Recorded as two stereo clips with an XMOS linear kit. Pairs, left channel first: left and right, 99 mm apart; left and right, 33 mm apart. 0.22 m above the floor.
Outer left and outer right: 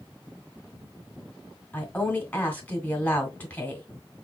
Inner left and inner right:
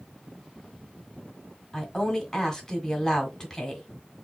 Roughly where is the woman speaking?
Left.